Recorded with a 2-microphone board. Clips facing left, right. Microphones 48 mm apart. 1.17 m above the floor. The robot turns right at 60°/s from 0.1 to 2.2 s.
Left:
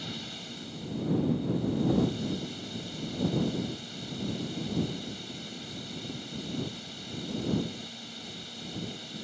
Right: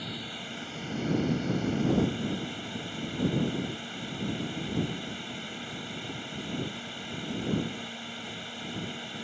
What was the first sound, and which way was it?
A drone, 165° right.